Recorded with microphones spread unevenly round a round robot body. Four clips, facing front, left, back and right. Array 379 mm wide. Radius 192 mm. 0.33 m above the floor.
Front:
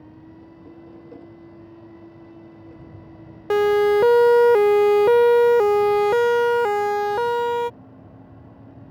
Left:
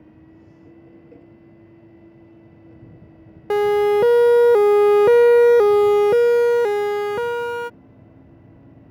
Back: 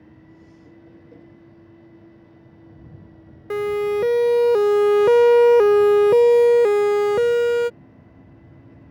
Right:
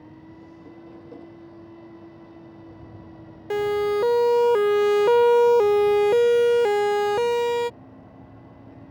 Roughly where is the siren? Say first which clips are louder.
Left 6 dB, front 5 dB; left.